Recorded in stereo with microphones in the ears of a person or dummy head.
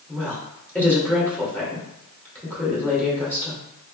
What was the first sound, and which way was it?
A woman speaking, 10° left (ahead or behind).